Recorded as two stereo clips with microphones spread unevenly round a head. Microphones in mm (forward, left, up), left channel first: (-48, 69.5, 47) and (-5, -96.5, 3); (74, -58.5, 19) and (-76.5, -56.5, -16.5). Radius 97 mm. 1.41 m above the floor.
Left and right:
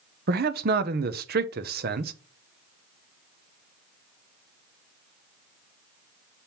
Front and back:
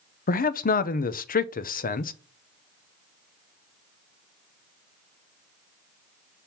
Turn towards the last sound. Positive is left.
turn(degrees=-35)